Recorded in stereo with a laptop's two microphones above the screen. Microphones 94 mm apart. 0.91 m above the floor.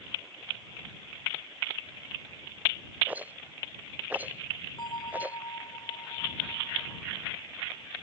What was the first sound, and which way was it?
A rattle, 20° right (ahead or behind).